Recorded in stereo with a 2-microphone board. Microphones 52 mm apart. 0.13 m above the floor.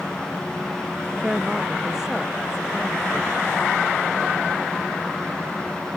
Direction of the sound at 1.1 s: 10° right (ahead or behind).